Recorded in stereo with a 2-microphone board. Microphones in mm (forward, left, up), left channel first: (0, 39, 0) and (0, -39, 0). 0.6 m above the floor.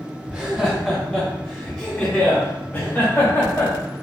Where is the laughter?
15° right (ahead or behind), 0.8 m; by 3.7 s 45° left (ahead or behind), 2 m.